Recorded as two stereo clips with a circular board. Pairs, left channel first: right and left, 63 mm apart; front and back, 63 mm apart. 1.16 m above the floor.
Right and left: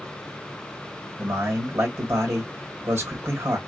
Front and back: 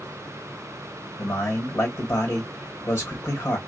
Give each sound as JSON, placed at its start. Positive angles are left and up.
{"t": 1.2, "sound": "a man speaking", "azimuth_deg": 45, "distance_m": 1.6}